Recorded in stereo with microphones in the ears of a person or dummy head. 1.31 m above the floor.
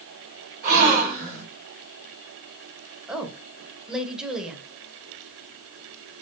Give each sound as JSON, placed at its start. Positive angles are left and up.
{"t": 0.6, "sound": "a gasp", "side_deg": -50, "distance_m": 2.0}
{"t": 3.1, "sound": "a woman speaking", "side_deg": -5, "distance_m": 0.9}